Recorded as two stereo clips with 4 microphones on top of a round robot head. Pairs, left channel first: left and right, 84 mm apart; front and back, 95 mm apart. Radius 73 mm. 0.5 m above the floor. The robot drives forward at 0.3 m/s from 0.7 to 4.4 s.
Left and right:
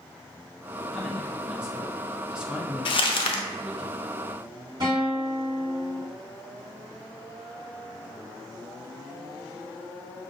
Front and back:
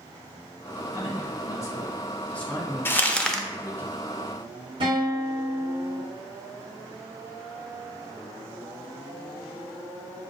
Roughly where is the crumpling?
Left.